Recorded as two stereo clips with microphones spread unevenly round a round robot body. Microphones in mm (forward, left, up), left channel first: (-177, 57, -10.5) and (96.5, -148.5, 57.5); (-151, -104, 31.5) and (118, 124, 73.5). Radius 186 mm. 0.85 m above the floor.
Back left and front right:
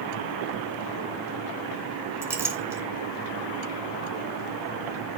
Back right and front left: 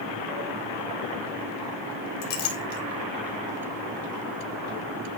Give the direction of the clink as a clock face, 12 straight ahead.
4 o'clock.